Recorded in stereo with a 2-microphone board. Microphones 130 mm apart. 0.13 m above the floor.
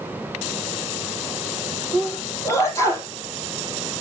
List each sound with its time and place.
1.9 s a sneeze: 25° left (ahead or behind), 4.5 m